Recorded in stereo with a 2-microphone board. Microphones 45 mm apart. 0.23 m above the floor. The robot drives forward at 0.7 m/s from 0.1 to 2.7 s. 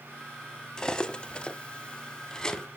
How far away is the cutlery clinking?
About 0.8 m.